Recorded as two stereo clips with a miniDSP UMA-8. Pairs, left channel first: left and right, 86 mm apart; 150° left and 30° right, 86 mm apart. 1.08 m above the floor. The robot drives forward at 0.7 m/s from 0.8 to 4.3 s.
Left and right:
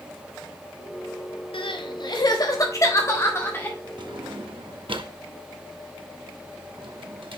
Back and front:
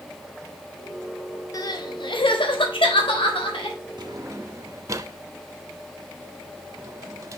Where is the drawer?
65° right, 0.8 m; by 7.4 s 80° right, 0.7 m.